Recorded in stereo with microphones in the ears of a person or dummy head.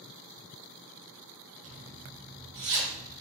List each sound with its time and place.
1.6 s a zipper: 55° right (ahead or behind), 2.5 m